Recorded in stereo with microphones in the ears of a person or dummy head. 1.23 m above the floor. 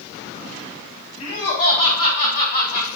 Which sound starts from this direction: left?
Laughter, at 1.2 s.